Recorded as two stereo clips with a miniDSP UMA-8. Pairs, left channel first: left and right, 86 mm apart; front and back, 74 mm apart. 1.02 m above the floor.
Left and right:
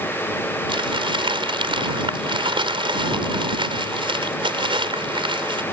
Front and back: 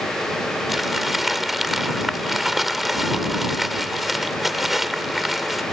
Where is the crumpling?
90° right.